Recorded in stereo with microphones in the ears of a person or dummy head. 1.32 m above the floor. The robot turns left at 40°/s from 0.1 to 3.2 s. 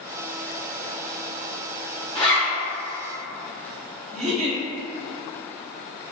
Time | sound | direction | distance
2.1 | a zipper | 20° left (ahead or behind) | 1.4 m
4.1 | a giggle | 45° right (ahead or behind) | 1.4 m